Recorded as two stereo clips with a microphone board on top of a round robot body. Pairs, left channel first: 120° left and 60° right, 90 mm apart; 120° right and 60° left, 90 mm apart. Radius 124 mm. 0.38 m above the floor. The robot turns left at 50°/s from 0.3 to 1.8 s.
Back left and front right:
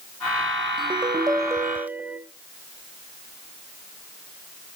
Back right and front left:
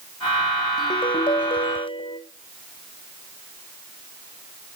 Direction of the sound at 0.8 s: 80° right.